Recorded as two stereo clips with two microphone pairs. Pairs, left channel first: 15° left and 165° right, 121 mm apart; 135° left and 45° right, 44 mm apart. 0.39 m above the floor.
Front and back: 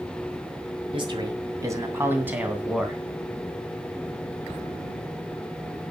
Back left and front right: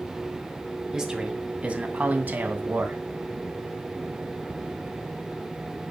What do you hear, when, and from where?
0.9 s a man speaking: 120° right, 2 m; by 3.0 s 80° right, 3 m